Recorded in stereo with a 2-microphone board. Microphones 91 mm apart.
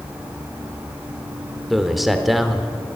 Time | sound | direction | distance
1.7 | a man speaking | centre (ahead or behind) | 0.8 m